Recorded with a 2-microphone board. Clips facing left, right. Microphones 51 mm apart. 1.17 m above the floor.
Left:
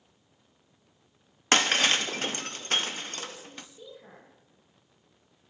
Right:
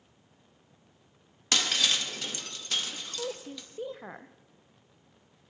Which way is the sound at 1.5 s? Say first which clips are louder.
Left 5 dB; 40° left (ahead or behind).